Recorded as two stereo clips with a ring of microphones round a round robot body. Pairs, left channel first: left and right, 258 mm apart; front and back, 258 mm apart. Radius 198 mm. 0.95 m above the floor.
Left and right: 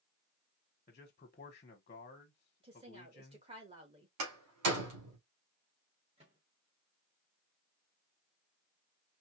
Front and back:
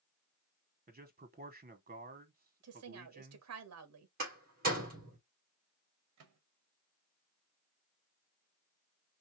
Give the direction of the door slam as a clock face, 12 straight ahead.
4 o'clock.